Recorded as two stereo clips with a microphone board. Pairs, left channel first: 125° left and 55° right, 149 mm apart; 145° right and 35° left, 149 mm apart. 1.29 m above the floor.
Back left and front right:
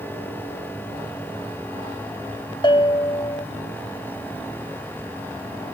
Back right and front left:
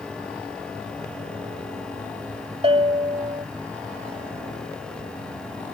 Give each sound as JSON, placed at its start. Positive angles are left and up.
{"t": 2.6, "sound": "a bell", "azimuth_deg": 75}